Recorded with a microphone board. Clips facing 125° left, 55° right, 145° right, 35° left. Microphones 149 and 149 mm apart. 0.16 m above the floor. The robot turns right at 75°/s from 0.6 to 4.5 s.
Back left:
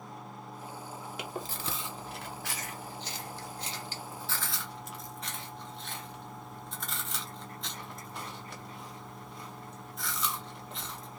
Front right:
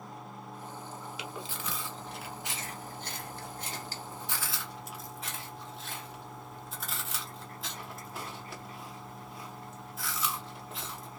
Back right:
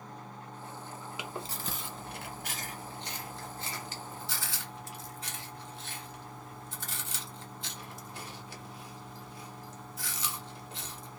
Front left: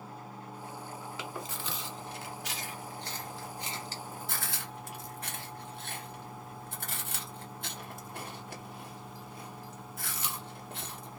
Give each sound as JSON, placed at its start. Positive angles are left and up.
{"t": 1.2, "sound": "chewing", "azimuth_deg": 140, "distance_m": 1.1}